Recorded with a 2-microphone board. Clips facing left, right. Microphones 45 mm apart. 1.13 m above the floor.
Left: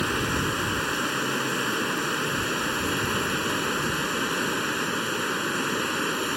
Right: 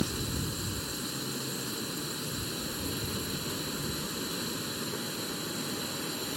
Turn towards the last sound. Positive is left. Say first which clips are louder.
# left 9 dB
turn(degrees=65)  # may be behind; listen again after turning